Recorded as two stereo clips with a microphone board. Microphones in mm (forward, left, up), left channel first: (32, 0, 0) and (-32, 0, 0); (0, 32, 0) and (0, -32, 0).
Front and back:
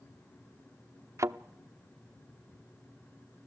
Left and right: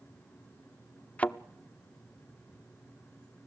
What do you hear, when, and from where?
1.2 s a thud: 155° left, 0.5 m